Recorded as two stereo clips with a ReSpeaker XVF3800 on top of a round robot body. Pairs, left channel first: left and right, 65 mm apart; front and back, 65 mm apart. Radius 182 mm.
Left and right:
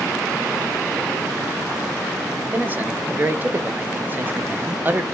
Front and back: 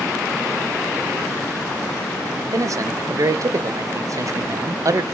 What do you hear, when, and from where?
2.5 s a man speaking: 150° right, 0.5 m